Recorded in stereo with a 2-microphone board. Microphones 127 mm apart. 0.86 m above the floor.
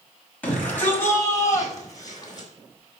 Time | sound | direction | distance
0.4 | a shout | 10° left (ahead or behind) | 6 m